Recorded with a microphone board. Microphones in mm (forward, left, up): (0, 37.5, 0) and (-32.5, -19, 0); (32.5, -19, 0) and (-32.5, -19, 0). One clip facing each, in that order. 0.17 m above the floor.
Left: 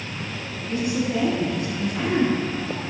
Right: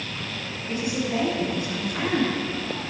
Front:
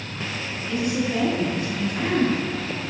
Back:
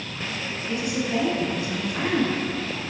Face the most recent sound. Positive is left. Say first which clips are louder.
# left 3 dB, front 2 dB
turn(degrees=-170)